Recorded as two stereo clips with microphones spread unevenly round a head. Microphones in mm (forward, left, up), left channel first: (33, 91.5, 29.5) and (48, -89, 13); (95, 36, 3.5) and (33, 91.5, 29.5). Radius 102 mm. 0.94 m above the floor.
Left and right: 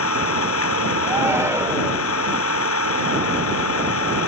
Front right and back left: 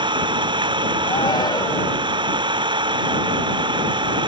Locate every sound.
0.0 s an engine running: 120° left
1.0 s a shout: 10° right